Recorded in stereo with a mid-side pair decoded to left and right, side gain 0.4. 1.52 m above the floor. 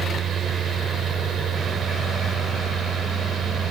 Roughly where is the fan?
Right.